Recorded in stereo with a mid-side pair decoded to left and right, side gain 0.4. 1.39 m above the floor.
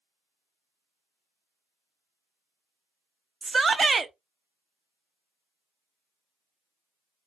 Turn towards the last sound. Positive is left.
turn(degrees=-35)